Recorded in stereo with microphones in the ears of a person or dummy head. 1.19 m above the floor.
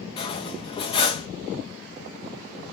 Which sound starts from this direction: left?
Cutlery clinking, at 0.2 s.